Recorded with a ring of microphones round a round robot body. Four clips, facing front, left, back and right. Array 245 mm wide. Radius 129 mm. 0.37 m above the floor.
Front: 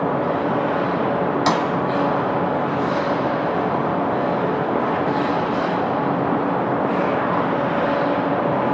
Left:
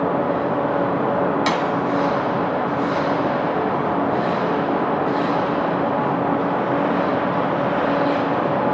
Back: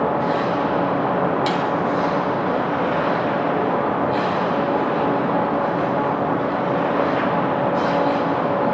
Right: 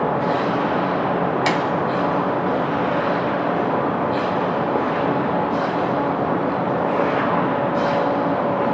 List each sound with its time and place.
1.5 s a clap: 25° right, 2 m